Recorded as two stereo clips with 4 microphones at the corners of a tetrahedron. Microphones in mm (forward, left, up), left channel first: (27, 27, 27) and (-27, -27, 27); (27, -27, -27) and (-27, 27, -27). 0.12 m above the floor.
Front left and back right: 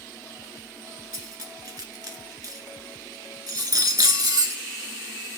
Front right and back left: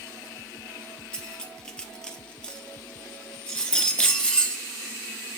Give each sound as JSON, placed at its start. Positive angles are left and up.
{"t": 1.1, "sound": "cutlery clinking", "azimuth_deg": -120, "distance_m": 1.0}